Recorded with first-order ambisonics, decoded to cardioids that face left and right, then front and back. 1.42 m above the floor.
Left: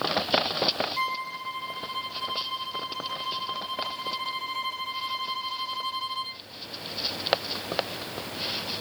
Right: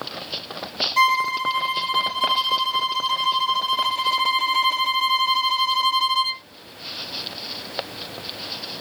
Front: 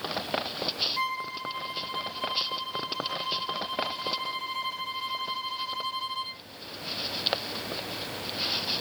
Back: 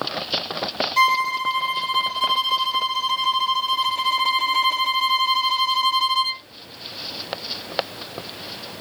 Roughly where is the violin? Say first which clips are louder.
Right 11 dB, back 13 dB; behind right.